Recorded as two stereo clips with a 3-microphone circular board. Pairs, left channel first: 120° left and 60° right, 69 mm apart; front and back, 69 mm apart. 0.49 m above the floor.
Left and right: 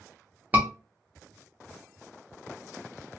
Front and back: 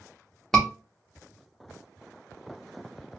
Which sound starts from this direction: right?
A scream, at 0.5 s.